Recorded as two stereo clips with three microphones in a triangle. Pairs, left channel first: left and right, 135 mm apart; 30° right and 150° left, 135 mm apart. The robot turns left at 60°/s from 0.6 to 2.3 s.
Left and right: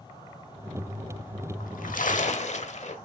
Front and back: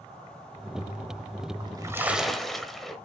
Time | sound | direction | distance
1.6 | a splash | 100° left | 1.0 m